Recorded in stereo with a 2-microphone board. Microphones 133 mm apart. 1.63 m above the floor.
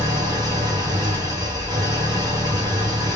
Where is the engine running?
30° right (ahead or behind), 2 m.